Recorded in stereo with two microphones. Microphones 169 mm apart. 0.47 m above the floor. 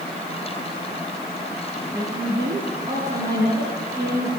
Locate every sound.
1.9 s a woman speaking: 45° right (ahead or behind), 8.5 m